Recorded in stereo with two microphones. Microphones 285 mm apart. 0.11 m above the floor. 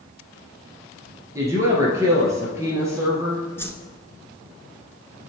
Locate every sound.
1.4 s a woman speaking: 10° right (ahead or behind), 2 m
3.6 s a whoosh: 10° left (ahead or behind), 0.9 m